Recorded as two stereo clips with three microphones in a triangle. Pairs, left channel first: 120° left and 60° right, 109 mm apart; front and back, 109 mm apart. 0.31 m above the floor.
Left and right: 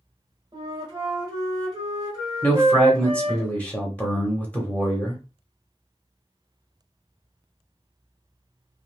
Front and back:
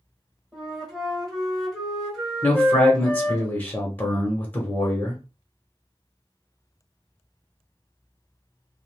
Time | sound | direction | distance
0.5 | a flute | 85° right | 1.2 m
2.4 | a man speaking | 55° left | 0.9 m